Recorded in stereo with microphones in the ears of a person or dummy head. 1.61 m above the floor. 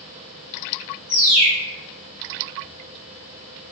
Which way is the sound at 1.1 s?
35° left (ahead or behind).